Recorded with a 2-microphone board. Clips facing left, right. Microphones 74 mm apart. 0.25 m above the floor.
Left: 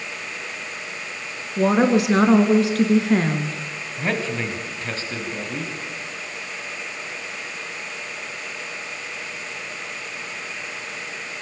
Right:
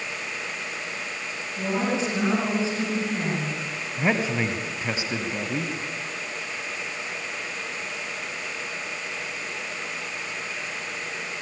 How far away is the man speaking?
About 2 m.